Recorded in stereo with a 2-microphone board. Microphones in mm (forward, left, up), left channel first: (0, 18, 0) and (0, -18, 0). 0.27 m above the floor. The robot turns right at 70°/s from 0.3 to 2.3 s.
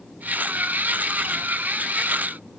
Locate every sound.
Only background noise.